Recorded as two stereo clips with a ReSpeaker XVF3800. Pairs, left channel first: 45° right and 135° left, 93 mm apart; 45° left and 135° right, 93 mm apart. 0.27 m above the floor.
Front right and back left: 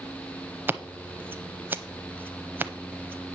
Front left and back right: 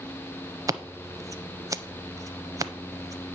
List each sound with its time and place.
0.7 s scissors: 165° right, 0.6 m